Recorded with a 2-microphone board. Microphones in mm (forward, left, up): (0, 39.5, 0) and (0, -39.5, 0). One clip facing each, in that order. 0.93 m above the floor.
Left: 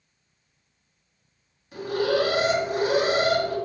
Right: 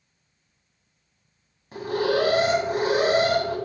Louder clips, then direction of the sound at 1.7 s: Even; 35° right (ahead or behind).